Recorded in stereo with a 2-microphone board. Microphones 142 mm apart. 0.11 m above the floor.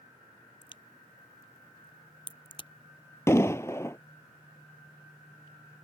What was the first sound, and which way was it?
A crack, 40° left (ahead or behind).